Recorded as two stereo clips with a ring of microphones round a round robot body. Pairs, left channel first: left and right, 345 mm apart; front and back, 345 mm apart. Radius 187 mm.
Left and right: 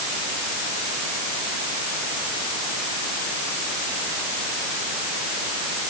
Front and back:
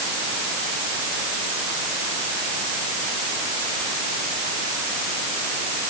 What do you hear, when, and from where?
Only background noise.